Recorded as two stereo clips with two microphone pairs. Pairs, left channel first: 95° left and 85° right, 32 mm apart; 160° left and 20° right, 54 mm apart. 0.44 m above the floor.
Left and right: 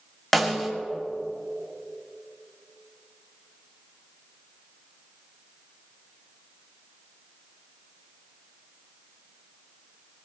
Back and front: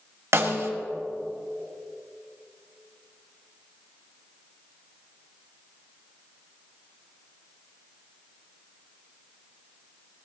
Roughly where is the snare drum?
Ahead.